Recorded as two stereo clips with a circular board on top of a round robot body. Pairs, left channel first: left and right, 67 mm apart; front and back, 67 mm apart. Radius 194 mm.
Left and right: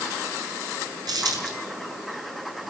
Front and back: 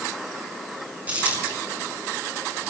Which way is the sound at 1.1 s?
110° right.